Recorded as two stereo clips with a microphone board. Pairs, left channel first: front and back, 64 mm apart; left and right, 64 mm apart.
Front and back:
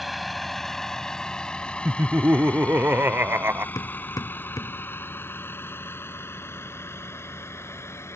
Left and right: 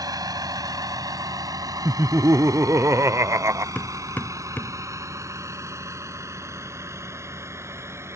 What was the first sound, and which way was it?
A vehicle, 90° right.